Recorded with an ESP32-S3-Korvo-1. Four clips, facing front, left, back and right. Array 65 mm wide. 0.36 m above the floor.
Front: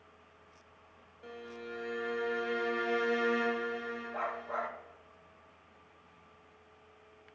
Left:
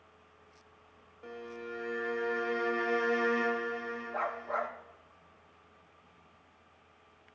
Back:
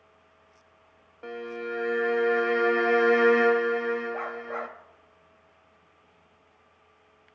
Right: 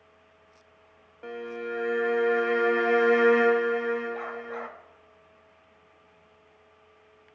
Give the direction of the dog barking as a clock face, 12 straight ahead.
10 o'clock.